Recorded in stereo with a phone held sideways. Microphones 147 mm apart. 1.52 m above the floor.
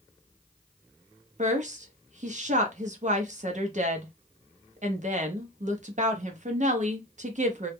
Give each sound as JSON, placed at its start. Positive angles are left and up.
{"t": 1.4, "sound": "a woman speaking", "side_deg": -55, "distance_m": 0.7}